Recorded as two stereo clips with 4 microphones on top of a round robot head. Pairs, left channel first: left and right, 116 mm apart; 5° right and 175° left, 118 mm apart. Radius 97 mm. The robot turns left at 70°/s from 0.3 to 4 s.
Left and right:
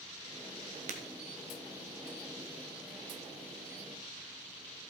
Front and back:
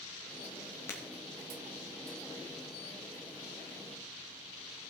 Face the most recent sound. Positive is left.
turn(degrees=70)